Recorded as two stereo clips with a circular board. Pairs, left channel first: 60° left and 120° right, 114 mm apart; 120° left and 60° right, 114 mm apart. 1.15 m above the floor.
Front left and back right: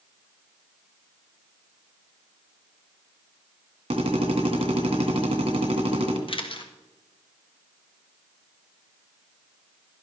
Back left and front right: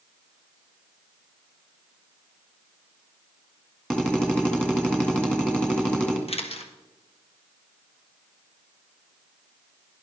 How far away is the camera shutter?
About 1.2 m.